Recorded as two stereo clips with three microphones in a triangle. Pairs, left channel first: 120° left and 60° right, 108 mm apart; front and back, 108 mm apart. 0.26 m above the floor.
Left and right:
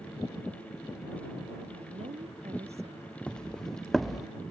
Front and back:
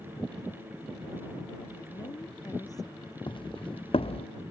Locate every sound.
1.7 s a woman speaking: 55° right
3.3 s footsteps: 40° left; by 4.3 s 25° left